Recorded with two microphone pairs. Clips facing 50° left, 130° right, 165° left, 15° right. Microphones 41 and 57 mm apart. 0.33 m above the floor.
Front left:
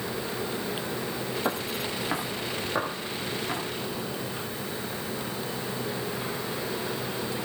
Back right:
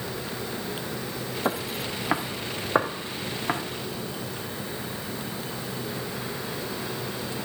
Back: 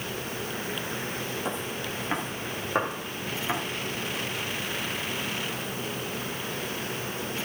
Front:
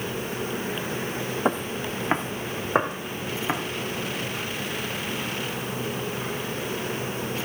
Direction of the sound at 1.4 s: 50° right.